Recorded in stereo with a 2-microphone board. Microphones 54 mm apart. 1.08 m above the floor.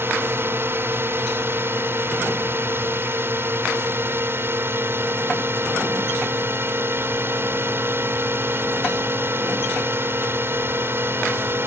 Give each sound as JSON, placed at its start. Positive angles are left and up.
{"t": 0.0, "sound": "a drone", "side_deg": -50}